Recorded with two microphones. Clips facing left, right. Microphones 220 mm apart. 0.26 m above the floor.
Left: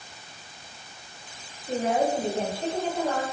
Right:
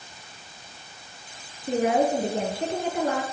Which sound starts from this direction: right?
A woman speaking, at 1.7 s.